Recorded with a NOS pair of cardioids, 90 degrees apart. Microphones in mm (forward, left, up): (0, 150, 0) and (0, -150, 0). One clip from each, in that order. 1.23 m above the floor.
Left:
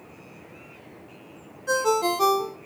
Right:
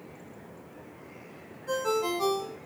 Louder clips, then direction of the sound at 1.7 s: Left 6 dB; 65° left.